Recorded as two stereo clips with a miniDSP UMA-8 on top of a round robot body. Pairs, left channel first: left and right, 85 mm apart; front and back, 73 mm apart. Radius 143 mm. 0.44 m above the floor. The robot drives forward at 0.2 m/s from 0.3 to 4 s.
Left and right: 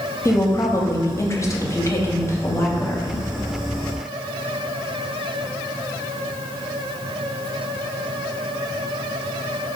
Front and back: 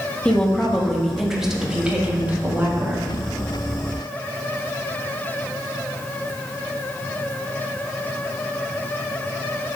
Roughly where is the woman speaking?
Left.